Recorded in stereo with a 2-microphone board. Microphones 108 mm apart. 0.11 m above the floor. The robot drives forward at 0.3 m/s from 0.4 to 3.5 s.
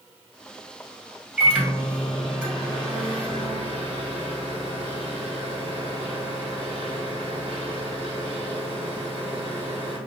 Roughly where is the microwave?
Centre.